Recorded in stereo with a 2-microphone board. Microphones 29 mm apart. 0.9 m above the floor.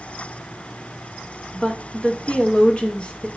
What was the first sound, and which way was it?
A woman speaking, 35° left (ahead or behind).